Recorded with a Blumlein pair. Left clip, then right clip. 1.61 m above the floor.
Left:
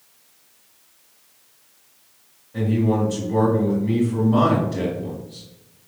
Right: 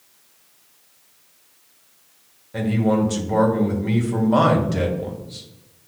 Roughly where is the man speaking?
Ahead right.